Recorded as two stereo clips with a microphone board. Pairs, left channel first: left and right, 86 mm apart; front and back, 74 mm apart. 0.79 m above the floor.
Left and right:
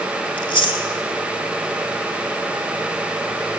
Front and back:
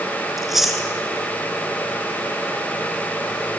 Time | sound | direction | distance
0.4 | chewing | 95° left | 1.7 m